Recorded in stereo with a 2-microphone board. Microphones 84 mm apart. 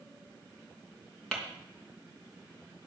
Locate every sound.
1.3 s tapping: 10° left (ahead or behind), 3 m